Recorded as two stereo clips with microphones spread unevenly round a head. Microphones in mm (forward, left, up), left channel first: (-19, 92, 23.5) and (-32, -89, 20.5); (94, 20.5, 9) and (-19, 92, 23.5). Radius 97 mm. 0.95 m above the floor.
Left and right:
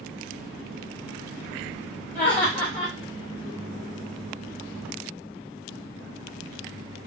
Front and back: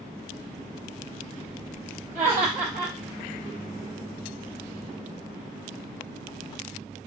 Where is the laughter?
165° left, 1.0 m.